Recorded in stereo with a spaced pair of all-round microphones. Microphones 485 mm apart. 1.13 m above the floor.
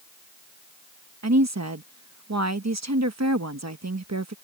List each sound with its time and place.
1.2 s a woman speaking: 35° right (ahead or behind)